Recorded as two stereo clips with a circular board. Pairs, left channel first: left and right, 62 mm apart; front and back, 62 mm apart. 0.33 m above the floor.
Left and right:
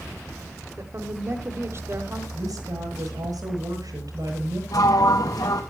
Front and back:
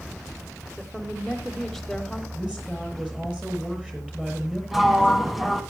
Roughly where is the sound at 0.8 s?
Right.